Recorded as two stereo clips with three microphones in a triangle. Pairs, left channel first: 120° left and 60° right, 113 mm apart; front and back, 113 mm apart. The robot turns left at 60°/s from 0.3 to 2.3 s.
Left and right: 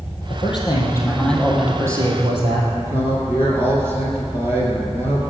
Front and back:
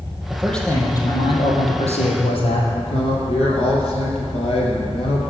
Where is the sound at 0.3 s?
100° left, 3.5 m; by 2.6 s 20° right, 3.5 m.